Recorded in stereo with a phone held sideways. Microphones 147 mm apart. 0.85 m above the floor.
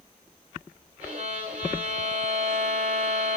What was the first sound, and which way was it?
A violin, 50° right (ahead or behind).